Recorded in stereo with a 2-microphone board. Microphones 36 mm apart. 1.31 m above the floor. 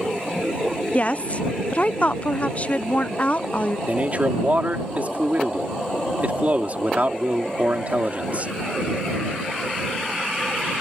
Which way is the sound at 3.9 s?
40° right (ahead or behind).